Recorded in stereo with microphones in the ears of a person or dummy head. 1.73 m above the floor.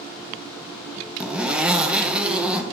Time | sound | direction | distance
1.2 | a zipper | 5° right (ahead or behind) | 0.7 m